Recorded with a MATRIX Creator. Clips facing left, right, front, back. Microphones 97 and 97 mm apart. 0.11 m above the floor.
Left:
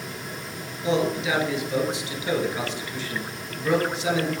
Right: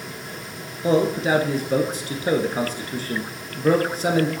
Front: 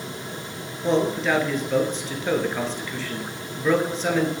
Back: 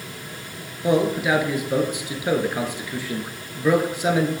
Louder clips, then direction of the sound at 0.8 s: Right 4 dB, back 2 dB; 105° right.